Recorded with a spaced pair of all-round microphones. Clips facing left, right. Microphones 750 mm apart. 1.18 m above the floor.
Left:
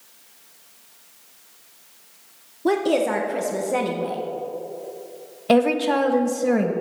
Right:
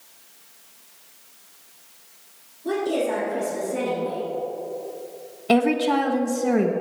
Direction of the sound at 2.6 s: 85° left.